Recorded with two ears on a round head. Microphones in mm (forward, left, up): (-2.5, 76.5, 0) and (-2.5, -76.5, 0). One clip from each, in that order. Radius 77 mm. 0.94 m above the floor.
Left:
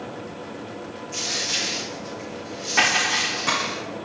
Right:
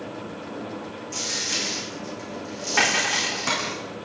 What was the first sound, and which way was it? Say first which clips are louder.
A dropped coin: left 2 dB; 25° right (ahead or behind).